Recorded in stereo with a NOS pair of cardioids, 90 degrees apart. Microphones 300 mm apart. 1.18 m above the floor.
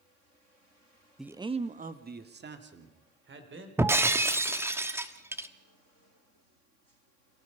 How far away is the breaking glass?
About 1.3 m.